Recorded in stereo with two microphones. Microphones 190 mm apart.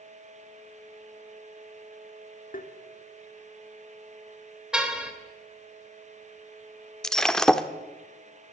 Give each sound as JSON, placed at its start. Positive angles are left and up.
{"t": 2.5, "sound": "tapping", "side_deg": 45, "distance_m": 2.0}
{"t": 4.7, "sound": "a car horn", "side_deg": -5, "distance_m": 3.0}
{"t": 7.0, "sound": "breaking glass", "side_deg": 5, "distance_m": 1.2}